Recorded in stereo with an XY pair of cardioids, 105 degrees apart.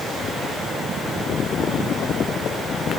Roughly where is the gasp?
No gasp in this recording.